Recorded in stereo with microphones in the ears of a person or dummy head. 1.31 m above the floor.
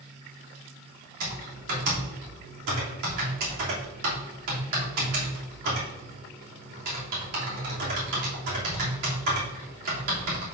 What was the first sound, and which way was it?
Typing on a keyboard, 60° right (ahead or behind).